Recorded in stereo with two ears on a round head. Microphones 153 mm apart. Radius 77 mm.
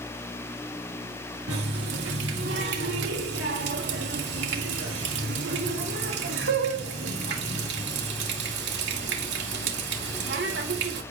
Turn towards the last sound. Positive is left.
turn(degrees=-75)  # may be behind; listen again after turning